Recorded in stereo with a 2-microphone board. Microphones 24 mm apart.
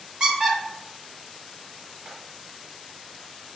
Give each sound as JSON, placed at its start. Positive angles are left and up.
{"t": 0.2, "sound": "a squeak", "side_deg": -30, "distance_m": 1.6}